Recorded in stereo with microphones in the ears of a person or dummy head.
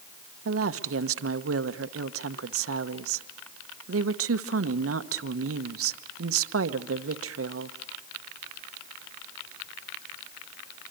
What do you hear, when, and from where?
0.5 s a woman speaking: 70° right (ahead or behind), 0.9 m